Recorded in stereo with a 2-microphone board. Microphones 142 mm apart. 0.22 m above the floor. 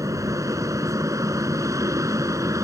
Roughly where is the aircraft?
Right.